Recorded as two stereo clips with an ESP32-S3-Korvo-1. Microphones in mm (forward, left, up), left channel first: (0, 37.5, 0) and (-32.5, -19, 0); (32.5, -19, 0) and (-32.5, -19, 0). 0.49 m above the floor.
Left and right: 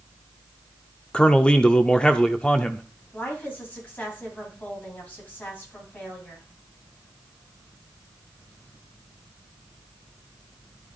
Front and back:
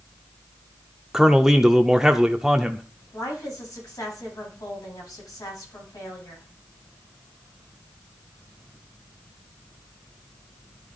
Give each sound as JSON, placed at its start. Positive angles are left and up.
{"t": 1.1, "sound": "a man speaking", "azimuth_deg": 105, "distance_m": 0.7}
{"t": 3.1, "sound": "a woman speaking", "azimuth_deg": 0, "distance_m": 3.5}